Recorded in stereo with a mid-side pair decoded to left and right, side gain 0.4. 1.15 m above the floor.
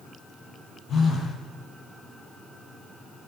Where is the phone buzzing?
65° left, 9 m.